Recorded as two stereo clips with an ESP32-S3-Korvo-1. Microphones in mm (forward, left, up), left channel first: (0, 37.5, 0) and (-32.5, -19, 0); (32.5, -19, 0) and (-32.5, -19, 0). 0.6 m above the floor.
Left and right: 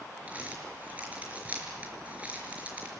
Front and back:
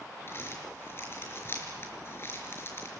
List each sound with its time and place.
0.3 s crumpling: 50° right, 4.5 m